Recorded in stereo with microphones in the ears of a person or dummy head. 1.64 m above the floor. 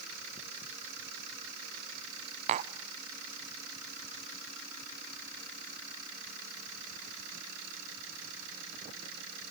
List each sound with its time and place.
2.5 s tapping: 40° right (ahead or behind), 0.6 m